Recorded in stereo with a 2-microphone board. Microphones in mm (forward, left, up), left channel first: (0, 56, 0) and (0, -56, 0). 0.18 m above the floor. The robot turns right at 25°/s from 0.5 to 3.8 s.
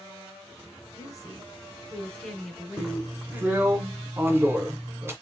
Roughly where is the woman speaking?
Behind left.